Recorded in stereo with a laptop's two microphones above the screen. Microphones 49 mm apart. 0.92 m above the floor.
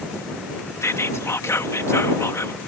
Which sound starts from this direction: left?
Whispering, at 0.8 s.